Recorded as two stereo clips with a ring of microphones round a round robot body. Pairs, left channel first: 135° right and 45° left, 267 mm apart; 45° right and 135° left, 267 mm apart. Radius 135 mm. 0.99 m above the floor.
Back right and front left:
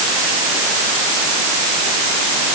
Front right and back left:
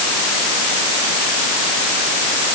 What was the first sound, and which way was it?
Only background noise.